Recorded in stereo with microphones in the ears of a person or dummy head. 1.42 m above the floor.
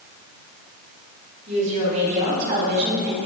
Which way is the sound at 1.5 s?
40° right (ahead or behind).